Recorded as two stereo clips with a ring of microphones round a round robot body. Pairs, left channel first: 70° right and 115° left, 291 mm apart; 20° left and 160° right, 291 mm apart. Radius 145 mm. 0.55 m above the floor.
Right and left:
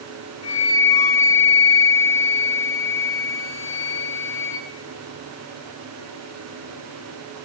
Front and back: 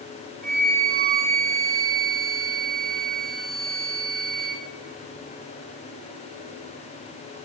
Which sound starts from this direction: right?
A flute, at 0.4 s.